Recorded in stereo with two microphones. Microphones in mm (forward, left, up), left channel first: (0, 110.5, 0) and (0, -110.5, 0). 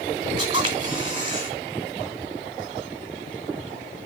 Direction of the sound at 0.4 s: 25° right (ahead or behind).